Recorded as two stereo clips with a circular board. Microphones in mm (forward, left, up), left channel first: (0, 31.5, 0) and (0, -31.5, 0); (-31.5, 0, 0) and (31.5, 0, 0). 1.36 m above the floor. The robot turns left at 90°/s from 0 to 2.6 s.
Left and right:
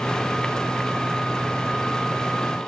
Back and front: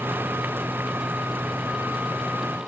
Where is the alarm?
No alarm in this recording.